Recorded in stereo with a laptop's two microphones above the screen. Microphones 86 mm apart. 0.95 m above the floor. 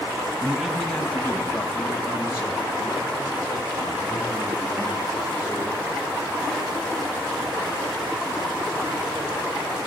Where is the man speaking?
10° right (ahead or behind), 0.5 m; by 6.1 s 45° left (ahead or behind), 3.5 m.